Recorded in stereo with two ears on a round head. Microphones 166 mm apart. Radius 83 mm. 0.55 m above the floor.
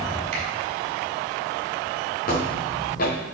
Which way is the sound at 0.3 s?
35° right (ahead or behind).